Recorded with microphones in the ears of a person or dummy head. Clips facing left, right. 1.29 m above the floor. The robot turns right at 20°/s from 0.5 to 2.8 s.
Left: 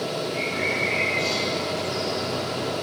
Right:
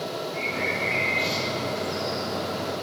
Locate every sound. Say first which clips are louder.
0.3 s a bird: left 2 dB; centre (ahead or behind), 8 m; by 2.3 s 35° right (ahead or behind), 8 m